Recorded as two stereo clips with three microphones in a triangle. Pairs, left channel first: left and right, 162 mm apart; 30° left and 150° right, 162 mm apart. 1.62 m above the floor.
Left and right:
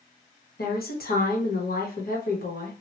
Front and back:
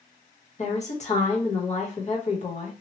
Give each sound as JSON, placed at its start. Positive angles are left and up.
{"t": 0.6, "sound": "a woman speaking", "azimuth_deg": 75, "distance_m": 1.1}